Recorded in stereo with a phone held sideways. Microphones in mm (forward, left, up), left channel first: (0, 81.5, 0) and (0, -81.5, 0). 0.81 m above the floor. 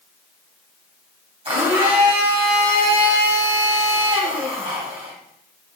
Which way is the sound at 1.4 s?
35° right (ahead or behind).